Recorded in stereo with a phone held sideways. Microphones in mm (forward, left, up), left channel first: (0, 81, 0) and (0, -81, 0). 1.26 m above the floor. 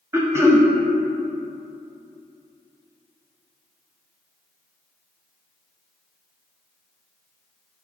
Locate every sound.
0.1 s throat clearing: 15° right (ahead or behind), 0.5 m